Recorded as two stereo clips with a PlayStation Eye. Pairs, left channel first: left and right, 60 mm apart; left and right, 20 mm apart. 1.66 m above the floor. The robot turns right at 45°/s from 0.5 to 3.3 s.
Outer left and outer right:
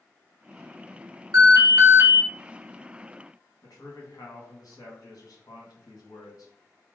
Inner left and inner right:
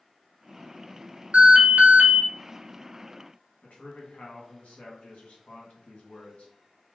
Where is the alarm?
80° right, 1.1 m; by 2.2 s 40° right, 1.1 m.